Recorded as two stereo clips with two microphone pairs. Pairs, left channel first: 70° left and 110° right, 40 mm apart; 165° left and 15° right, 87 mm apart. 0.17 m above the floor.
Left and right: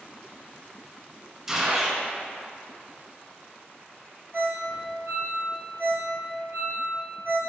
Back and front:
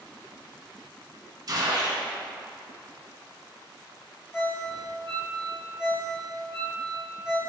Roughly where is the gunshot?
Ahead right.